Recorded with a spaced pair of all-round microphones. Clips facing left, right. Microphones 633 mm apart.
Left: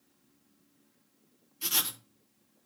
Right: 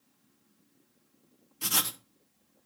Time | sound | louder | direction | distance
1.6 | writing | right 4 dB | 70° right (ahead or behind) | 0.8 m